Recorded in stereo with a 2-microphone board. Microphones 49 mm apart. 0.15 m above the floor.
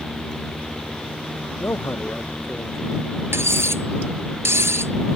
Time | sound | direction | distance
1.6 | a man speaking | 50° left (ahead or behind) | ?
3.3 | cutlery clinking | 60° right (ahead or behind) | ?